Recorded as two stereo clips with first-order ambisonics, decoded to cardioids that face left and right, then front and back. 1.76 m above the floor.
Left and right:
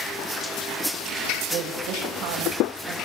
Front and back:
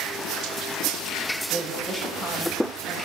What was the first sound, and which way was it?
A woman speaking, 105° right.